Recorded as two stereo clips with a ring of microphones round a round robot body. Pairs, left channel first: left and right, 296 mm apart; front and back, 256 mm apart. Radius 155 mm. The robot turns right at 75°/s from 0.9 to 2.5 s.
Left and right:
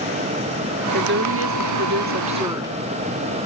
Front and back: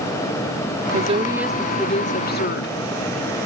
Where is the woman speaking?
135° right, 0.8 m; by 2.8 s 15° right, 0.8 m.